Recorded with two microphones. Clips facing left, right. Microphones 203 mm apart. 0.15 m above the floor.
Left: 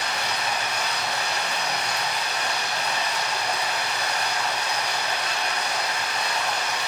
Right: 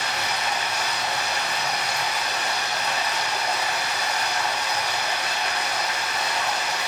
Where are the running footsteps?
No running footsteps in this recording.